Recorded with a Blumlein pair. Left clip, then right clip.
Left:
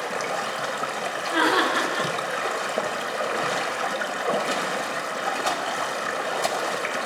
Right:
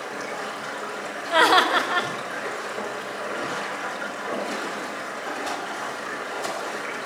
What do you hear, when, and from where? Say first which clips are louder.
0.0 s running water: left 4 dB; 65° left, 0.9 m
1.3 s laughter: right 4 dB; 40° right, 1.1 m